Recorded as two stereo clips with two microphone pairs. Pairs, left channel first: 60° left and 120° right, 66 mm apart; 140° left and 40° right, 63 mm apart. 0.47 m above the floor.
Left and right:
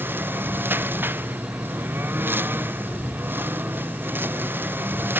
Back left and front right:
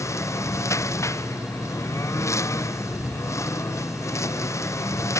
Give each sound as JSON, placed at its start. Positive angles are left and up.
{"t": 0.0, "sound": "a lawn mower", "azimuth_deg": 180}